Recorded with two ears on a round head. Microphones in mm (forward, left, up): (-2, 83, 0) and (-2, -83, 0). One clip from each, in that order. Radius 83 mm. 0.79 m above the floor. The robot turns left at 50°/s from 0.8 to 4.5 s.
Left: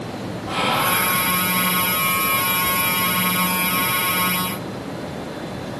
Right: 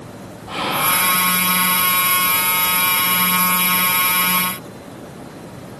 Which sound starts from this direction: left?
Whispering, at 0.5 s.